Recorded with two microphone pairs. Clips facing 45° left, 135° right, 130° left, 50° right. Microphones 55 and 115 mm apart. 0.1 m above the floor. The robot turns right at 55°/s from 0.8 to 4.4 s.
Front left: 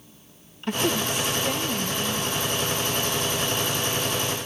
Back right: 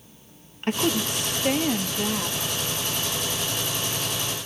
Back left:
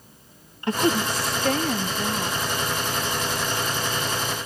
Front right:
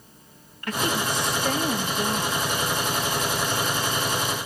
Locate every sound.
0.6 s a woman speaking: 170° right, 3 m; by 2.4 s 80° right, 3 m